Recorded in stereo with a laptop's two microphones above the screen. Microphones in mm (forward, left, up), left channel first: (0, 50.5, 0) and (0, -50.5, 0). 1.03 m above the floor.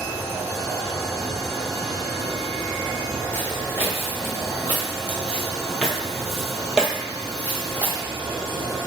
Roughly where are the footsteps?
Left.